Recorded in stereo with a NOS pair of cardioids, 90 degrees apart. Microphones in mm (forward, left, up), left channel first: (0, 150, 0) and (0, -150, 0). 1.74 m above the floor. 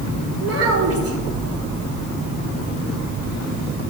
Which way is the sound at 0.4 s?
50° right.